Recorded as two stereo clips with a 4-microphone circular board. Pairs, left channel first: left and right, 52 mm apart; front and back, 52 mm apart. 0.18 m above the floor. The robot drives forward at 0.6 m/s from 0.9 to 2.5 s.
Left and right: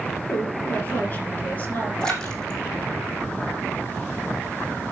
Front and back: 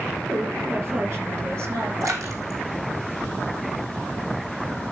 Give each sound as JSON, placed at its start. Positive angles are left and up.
{"t": 0.3, "sound": "a woman speaking", "azimuth_deg": 145, "distance_m": 3.0}
{"t": 2.0, "sound": "a splash", "azimuth_deg": 165, "distance_m": 3.0}